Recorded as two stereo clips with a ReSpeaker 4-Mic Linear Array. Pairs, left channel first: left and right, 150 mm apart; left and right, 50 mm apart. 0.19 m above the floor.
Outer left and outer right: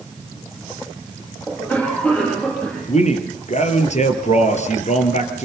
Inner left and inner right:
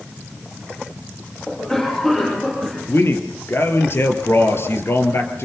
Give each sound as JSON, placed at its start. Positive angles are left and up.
{"t": 1.5, "sound": "a cough", "side_deg": 10, "distance_m": 7.5}
{"t": 2.9, "sound": "a man speaking", "side_deg": 50, "distance_m": 4.0}